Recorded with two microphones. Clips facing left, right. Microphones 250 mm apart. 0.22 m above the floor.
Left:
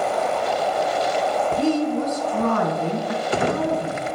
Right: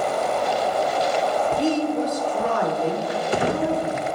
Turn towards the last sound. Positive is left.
turn(degrees=55)  # may be behind; listen again after turning